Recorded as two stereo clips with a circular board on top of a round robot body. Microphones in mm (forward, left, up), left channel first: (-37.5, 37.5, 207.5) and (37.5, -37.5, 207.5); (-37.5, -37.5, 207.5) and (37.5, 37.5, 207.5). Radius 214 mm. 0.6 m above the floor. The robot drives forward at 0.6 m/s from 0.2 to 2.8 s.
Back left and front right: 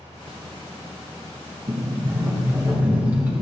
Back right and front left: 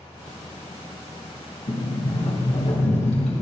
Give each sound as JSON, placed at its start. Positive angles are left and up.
{"t": 1.7, "sound": "a sliding door", "azimuth_deg": -105, "distance_m": 2.0}